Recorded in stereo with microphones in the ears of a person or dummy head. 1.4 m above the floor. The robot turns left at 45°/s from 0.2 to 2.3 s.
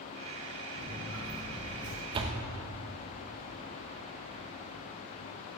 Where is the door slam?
30° right (ahead or behind), 1.0 m; by 2.4 s 40° right (ahead or behind), 1.0 m.